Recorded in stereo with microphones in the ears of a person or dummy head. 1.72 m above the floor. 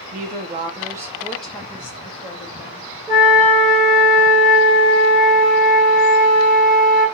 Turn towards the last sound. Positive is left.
turn(degrees=-20)  # may be behind; listen again after turning